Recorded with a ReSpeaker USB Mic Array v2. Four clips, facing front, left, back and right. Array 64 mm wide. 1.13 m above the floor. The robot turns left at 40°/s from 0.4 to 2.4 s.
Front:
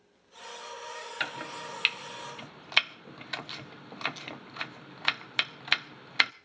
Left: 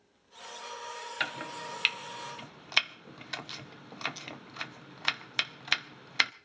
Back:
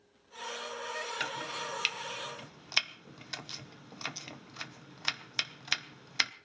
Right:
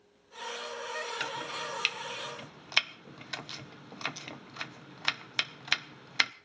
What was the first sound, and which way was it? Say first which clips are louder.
Chopping: even, front 1 dB; 55° left.